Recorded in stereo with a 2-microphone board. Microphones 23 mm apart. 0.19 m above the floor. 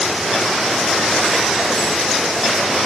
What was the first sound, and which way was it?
Only background noise.